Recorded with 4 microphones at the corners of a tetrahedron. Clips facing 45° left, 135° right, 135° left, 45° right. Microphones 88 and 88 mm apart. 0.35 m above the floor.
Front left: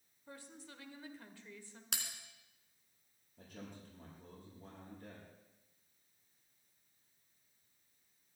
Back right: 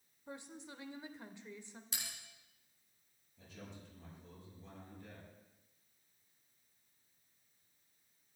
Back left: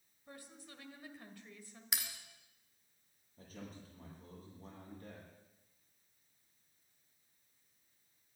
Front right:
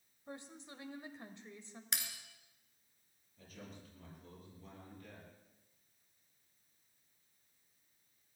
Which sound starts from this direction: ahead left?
A bell, at 1.9 s.